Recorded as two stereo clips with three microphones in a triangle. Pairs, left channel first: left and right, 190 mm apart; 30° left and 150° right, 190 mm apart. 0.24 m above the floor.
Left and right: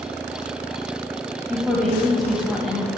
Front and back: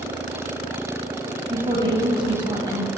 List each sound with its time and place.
1.5 s a woman speaking: straight behind, 1.5 m